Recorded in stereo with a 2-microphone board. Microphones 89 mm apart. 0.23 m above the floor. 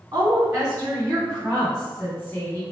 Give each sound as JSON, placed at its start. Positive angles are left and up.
{"t": 0.1, "sound": "a woman speaking", "side_deg": -40, "distance_m": 1.7}